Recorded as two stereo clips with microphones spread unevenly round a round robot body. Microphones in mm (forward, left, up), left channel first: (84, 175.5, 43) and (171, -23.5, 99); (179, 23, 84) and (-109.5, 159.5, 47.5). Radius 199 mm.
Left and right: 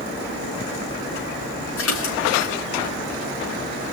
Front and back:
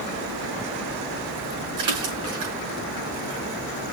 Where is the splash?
135° left, 6 m.